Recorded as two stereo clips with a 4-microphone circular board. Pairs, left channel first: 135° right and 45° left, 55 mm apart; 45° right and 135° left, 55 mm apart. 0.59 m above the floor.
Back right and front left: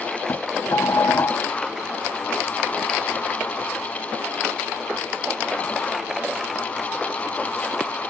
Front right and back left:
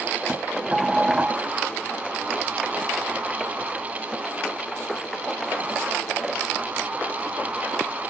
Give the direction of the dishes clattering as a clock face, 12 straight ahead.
5 o'clock.